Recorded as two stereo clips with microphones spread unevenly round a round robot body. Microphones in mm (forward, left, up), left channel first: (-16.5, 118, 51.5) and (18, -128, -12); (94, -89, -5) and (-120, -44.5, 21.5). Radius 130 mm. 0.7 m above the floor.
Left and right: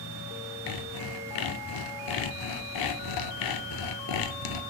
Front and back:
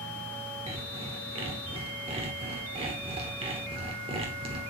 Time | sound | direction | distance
0.7 | sawing | 100° left | 0.8 m